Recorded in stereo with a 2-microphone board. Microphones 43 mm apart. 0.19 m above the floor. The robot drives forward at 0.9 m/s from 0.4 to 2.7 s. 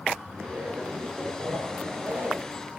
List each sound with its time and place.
0.3 s a zipper: 50° right (ahead or behind), 4 m; by 2.4 s 35° right (ahead or behind), 5.5 m